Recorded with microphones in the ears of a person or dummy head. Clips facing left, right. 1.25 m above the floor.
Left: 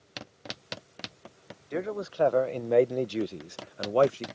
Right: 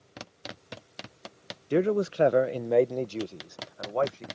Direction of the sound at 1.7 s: 45° right (ahead or behind).